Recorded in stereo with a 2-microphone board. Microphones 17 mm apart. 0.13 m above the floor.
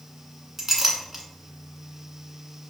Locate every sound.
0.6 s a clink: 15° right (ahead or behind), 1.2 m